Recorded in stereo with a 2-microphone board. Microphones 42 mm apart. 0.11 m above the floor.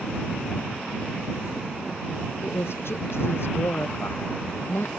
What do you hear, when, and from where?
2.4 s a woman speaking: 70° left (ahead or behind)